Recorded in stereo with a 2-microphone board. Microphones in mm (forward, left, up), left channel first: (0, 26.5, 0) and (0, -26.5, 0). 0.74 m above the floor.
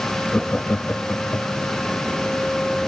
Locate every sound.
0.3 s laughter: 20° left (ahead or behind), 0.7 m; by 1.7 s 45° left (ahead or behind), 1.4 m